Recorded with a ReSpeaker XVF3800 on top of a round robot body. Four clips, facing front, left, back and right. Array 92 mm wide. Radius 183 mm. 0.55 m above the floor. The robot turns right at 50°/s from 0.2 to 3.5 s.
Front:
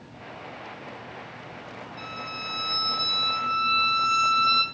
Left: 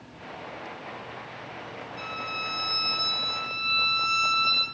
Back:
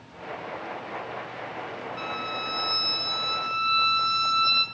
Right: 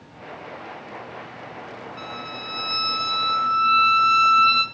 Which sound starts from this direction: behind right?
A violin, at 2.0 s.